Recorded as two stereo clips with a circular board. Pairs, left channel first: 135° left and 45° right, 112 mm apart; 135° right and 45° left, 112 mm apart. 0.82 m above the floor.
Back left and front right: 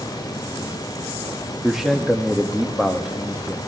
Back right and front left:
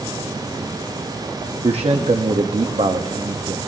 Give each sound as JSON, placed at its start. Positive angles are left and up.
{"t": 1.6, "sound": "a man speaking", "azimuth_deg": 40, "distance_m": 1.0}